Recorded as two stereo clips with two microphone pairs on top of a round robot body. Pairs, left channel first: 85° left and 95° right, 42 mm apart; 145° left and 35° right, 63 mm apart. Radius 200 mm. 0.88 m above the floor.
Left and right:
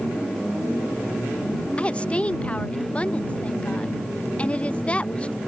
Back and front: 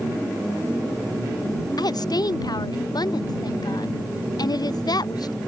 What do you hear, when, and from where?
1.8 s a woman speaking: 145° left